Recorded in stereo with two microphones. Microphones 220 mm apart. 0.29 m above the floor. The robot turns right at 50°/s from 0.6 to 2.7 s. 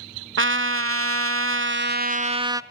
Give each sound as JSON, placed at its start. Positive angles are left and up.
{"t": 0.4, "sound": "a trumpet", "azimuth_deg": -115, "distance_m": 0.5}